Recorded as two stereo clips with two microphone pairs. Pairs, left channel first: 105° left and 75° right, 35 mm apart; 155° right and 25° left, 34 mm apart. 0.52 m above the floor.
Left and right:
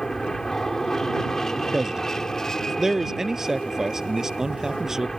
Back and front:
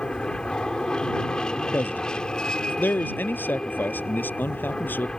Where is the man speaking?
155° right.